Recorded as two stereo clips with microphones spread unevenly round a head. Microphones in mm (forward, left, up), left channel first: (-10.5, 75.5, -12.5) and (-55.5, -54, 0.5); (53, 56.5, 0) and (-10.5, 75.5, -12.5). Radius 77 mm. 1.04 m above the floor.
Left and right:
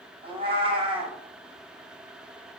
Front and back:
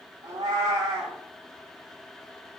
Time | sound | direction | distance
0.2 | a cat meowing | 155° right | 1.0 m